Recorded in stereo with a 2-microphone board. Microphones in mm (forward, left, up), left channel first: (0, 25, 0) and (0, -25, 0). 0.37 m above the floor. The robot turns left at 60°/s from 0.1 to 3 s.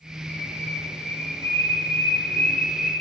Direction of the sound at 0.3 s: 150° left.